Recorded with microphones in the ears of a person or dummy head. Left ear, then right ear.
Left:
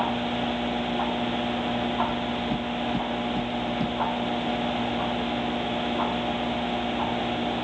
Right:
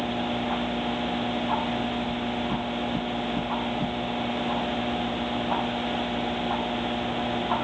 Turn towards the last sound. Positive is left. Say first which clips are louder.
# left 1 dB
turn(degrees=30)  # may be behind; listen again after turning